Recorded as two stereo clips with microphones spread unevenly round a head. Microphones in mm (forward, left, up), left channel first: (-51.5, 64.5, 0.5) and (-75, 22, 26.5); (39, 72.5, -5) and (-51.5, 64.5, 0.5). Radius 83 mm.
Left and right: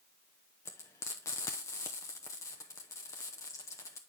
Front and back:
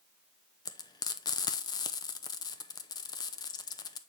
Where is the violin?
No violin in this recording.